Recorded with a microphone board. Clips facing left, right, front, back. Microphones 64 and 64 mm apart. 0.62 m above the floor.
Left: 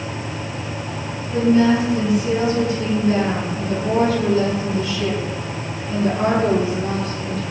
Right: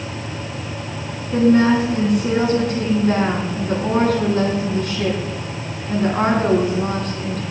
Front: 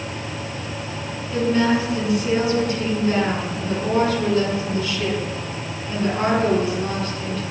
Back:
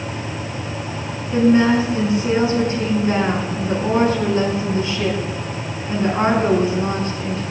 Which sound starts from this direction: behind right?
A woman speaking, at 1.3 s.